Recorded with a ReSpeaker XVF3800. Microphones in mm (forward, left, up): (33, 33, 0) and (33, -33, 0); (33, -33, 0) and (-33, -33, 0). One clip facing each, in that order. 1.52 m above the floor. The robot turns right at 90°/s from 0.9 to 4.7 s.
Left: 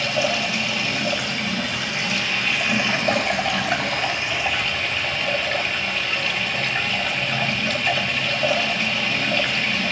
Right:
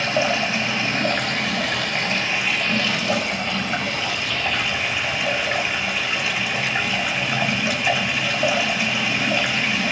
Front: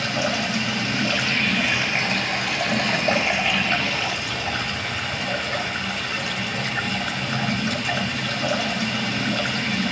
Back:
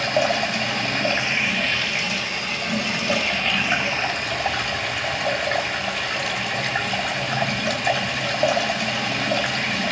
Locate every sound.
0.0 s running water: 150° right, 4.5 m; by 9.9 s 170° right, 4.5 m